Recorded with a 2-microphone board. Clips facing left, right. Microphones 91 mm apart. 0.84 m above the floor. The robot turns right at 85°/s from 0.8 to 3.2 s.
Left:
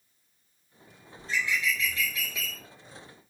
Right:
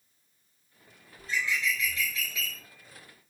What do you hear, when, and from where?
1.2 s a bird: 135° left, 2.5 m; by 2.6 s 105° right, 2.5 m